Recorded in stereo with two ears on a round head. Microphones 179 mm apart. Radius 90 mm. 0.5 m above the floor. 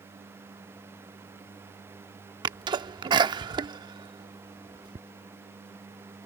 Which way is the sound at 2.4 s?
20° right (ahead or behind).